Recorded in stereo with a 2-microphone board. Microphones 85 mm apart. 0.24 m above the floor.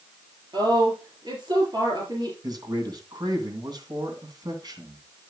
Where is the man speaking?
55° right (ahead or behind), 2.5 m.